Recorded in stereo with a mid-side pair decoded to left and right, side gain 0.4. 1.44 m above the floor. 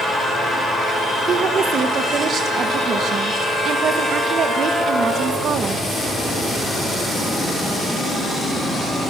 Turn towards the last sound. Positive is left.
turn(degrees=-65)